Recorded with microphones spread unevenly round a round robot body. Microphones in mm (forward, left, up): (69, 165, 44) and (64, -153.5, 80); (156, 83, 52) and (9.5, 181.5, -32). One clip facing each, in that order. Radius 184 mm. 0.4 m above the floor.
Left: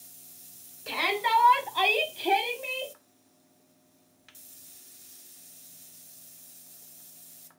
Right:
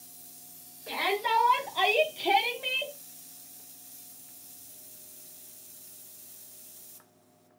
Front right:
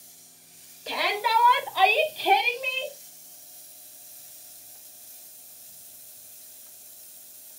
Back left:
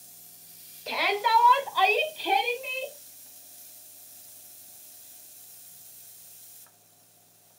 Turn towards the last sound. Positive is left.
turn(degrees=-50)